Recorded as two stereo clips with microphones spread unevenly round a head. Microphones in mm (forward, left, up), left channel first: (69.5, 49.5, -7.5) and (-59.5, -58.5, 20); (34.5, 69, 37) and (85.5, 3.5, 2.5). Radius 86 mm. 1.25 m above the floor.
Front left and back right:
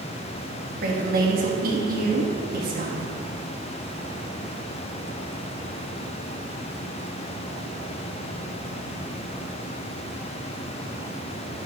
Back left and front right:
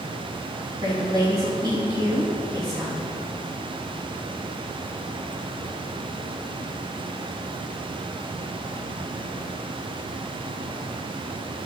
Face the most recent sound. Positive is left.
turn(degrees=-100)